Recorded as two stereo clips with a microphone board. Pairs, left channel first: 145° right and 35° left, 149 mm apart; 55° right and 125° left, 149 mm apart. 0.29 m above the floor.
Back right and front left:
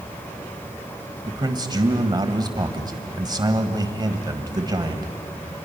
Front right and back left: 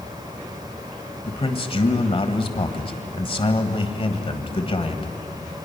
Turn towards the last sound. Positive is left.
turn(degrees=-20)